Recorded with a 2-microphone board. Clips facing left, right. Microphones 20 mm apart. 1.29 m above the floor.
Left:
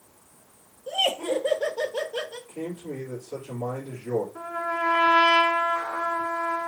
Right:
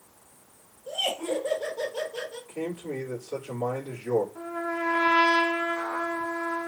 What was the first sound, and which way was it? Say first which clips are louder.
Laughter: left 4 dB; 50° left (ahead or behind).